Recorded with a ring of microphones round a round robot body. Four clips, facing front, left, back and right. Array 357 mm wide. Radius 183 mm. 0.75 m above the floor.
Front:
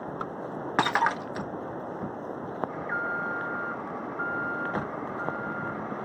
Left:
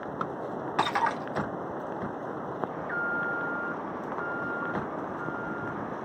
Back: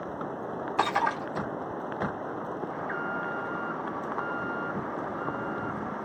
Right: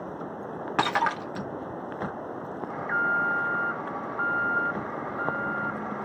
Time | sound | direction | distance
0.8 | breaking glass | 35° right | 1.4 m
2.7 | an alarm | 85° right | 3 m